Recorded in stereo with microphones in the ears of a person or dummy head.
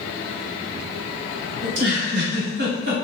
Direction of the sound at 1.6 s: 70° right (ahead or behind).